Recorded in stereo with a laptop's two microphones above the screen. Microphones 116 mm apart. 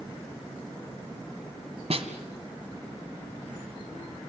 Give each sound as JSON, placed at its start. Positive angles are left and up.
{"t": 1.9, "sound": "a snare drum", "side_deg": -65, "distance_m": 1.7}